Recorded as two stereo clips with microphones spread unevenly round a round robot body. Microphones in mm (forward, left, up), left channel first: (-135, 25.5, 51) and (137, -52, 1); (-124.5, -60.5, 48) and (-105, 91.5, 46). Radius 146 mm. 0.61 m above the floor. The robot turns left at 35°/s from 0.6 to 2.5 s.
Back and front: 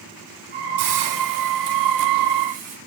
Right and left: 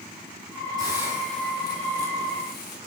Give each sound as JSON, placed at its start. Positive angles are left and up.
{"t": 0.8, "sound": "a hiss", "azimuth_deg": 10, "distance_m": 4.0}